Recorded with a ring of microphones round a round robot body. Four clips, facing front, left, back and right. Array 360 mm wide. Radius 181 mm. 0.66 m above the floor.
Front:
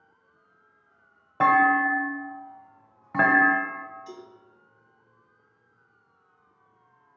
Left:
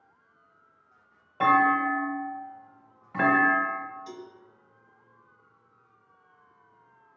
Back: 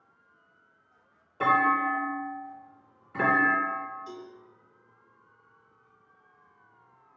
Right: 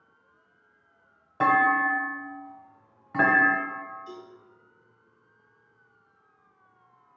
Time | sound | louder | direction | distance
1.4 | a clunk | even, front 4 dB | 15° right | 1.1 m
4.1 | a cowbell | left 1 dB, back 1 dB | 65° left | 1.4 m